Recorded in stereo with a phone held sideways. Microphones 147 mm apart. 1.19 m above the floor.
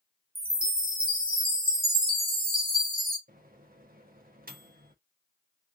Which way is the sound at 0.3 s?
80° right.